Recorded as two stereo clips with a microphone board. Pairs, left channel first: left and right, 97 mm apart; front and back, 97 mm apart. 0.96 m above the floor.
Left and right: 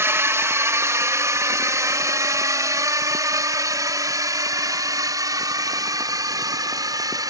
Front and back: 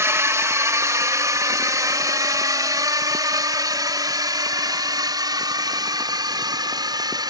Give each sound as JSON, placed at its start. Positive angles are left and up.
{"t": 0.0, "sound": "a drone", "azimuth_deg": -140}